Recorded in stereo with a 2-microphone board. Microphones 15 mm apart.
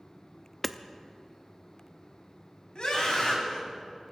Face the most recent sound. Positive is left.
turn(degrees=50)  # may be behind; listen again after turning